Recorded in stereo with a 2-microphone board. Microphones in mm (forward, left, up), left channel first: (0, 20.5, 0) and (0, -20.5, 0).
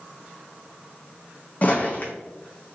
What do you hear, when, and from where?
1.6 s footsteps: 35° left (ahead or behind), 0.8 m